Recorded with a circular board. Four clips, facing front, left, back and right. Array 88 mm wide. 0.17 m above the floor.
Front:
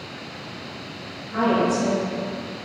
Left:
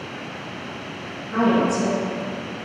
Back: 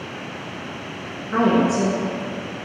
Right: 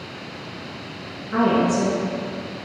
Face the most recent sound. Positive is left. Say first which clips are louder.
# even, back 3 dB
turn(degrees=-160)